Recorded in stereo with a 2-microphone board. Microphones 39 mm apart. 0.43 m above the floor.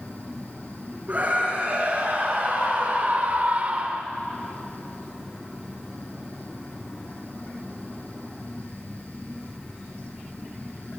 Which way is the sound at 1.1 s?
35° right (ahead or behind).